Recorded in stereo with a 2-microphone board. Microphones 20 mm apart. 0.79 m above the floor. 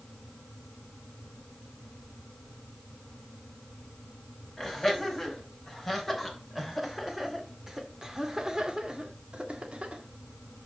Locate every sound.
4.6 s laughter: 10° left (ahead or behind), 5 m; by 10.0 s 70° right (ahead or behind), 1.8 m